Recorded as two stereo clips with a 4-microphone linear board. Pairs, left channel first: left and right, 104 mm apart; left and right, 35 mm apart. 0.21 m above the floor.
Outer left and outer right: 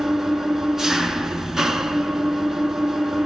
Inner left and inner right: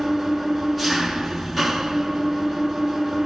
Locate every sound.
0.0 s an engine running: 5° right (ahead or behind), 0.9 m